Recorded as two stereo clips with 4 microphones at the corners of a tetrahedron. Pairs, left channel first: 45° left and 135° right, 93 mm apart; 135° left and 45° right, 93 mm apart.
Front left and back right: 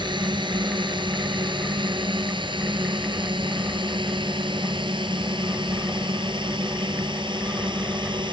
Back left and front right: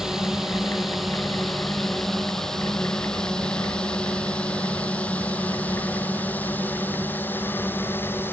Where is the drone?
130° right; by 8.3 s 160° right.